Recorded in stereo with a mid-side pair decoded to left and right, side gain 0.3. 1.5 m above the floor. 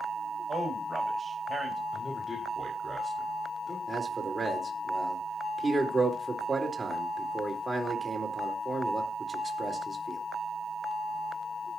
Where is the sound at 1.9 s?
30° left, 5 m.